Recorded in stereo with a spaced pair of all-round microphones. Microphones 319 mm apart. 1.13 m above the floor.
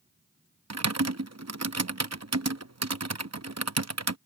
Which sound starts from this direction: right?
Typing on a keyboard, at 0.7 s.